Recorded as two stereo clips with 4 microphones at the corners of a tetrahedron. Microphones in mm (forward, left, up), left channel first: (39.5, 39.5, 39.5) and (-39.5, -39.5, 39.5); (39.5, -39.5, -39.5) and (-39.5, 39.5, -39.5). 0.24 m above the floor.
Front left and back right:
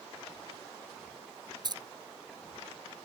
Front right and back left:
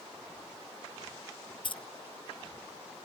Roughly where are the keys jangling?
Right.